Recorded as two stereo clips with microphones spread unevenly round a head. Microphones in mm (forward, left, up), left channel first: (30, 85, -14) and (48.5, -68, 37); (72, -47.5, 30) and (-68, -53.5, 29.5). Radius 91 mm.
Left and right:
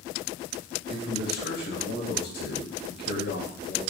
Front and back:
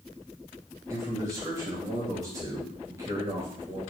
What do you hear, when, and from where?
0.9 s a man speaking: 110° left, 2.5 m